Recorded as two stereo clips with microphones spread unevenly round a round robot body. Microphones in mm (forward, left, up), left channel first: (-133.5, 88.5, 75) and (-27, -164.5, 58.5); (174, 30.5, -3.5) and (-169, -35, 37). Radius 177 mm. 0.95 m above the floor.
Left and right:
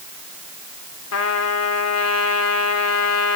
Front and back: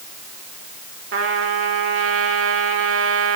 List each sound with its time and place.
1.1 s a trumpet: 135° left, 3.5 m